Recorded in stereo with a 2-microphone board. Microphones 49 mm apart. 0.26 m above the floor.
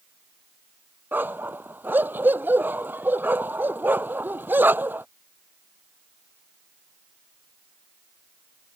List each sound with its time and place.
1.1 s a dog barking: 40° right (ahead or behind)